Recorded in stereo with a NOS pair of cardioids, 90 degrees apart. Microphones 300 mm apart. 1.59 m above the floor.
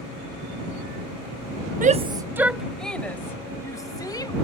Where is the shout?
30° right; by 4.3 s 15° left.